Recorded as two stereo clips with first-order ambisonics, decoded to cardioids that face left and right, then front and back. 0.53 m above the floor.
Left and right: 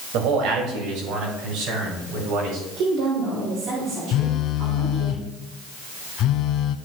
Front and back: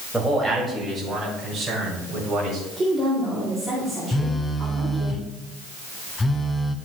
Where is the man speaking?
90° right, 2.0 m; by 2.6 s 110° right, 4.5 m.